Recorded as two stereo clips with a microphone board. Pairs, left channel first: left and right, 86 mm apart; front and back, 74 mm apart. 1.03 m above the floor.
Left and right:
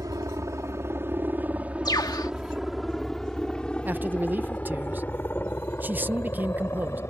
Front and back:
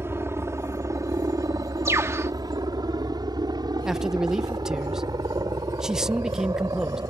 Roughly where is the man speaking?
Right.